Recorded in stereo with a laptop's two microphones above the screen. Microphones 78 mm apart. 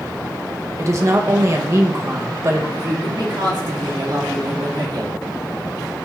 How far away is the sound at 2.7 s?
About 1.8 m.